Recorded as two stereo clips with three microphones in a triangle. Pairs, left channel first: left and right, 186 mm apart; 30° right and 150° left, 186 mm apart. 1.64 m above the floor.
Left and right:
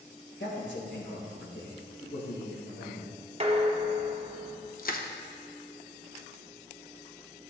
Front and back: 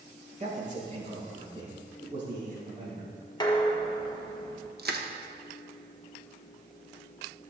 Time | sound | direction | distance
0.4 | a man speaking | 100° left | 1.7 m
3.4 | dishes clattering | 80° right | 0.9 m
4.8 | crushing | 125° left | 0.7 m